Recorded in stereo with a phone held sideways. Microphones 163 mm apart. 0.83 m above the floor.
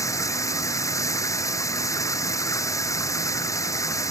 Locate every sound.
0.0 s running water: 20° left (ahead or behind)